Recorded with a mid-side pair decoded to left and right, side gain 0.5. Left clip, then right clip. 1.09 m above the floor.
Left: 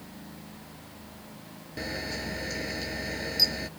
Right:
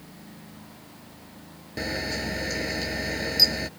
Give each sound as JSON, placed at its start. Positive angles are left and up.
{"t": 1.8, "sound": "a camera shutter", "azimuth_deg": -35}